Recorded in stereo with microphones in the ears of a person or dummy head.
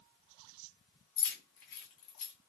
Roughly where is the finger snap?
No finger snap in this recording.